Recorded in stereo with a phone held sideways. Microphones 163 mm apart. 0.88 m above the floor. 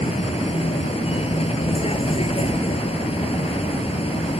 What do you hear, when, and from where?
0.0 s a vehicle: 35° left (ahead or behind)